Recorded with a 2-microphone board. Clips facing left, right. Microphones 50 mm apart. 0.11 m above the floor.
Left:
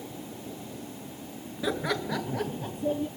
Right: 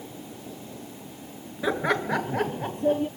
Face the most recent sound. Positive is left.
turn(degrees=-55)  # may be behind; listen again after turning